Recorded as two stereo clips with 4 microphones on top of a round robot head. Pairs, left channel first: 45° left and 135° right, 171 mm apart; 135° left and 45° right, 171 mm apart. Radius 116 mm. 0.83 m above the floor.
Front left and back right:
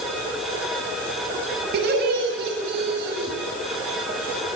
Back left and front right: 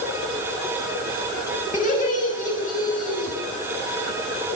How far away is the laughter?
About 8 m.